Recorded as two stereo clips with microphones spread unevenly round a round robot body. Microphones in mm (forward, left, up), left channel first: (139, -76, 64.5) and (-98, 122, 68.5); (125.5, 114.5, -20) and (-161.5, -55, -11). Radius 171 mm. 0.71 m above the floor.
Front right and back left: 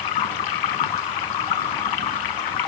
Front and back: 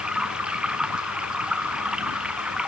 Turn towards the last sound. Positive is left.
turn(degrees=-60)